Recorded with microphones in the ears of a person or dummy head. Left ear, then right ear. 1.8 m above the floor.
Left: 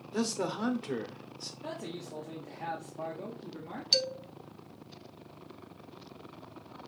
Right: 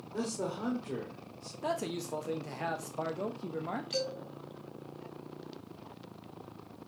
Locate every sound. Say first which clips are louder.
0.1 s a man speaking: left 3 dB; 75° left (ahead or behind), 0.9 m
1.6 s a man speaking: right 8 dB; 85° right, 0.6 m
3.9 s a man speaking: left 10 dB; 45° left (ahead or behind), 0.8 m